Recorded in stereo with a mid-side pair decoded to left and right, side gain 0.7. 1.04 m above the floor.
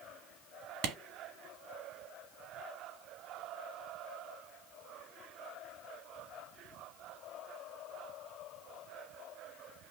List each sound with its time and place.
0.8 s a clap: 60° right, 1.2 m